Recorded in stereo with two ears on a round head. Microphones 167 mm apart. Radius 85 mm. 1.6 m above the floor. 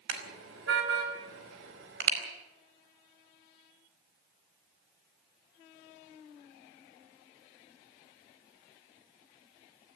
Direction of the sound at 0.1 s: 75° right (ahead or behind).